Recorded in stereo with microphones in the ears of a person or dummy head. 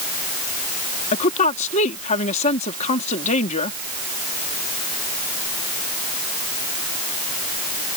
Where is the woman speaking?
40° left (ahead or behind).